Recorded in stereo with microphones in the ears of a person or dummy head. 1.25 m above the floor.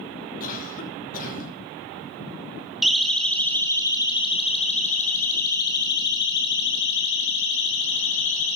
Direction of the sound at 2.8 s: Centre (ahead or behind).